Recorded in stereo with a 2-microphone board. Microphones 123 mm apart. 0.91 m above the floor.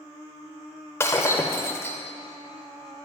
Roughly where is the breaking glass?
Left.